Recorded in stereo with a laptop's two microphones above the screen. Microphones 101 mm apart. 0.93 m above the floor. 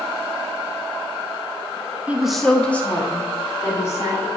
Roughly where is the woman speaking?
Centre.